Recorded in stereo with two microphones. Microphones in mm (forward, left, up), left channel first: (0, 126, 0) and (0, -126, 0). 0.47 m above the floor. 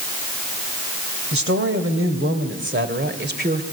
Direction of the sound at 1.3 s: 60° right (ahead or behind).